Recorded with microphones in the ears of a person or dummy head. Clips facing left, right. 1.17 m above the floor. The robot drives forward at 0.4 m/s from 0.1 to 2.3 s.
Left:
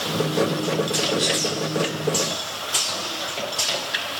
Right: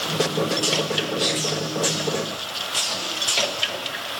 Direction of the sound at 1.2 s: 20° left (ahead or behind).